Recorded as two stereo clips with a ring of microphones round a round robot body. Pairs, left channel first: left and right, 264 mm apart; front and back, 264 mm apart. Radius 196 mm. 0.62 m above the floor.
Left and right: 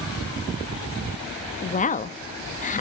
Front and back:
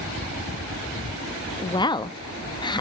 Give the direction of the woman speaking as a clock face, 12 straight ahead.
10 o'clock.